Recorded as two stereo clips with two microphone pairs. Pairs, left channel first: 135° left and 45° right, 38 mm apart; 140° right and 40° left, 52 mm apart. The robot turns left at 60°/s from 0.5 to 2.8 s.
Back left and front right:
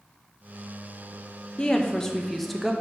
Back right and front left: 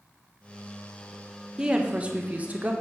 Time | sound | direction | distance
1.6 | a woman speaking | 100° left | 0.9 m